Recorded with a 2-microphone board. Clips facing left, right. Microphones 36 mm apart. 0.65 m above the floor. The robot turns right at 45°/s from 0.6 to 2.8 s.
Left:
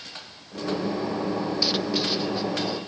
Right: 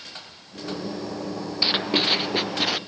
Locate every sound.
1.6 s writing: 145° right; by 2.8 s 95° right